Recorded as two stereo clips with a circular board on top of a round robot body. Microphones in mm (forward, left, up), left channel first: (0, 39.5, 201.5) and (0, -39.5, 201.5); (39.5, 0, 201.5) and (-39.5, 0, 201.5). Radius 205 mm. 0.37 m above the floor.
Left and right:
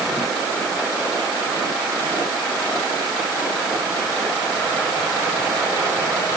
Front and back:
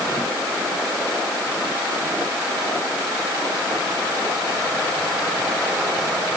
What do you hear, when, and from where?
Only background noise.